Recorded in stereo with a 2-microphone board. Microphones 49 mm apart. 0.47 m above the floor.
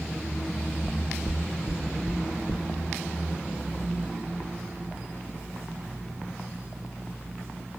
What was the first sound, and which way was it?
Knocking, 35° left (ahead or behind).